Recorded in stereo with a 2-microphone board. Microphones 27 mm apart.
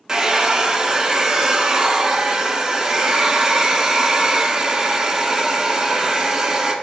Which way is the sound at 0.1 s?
25° right (ahead or behind).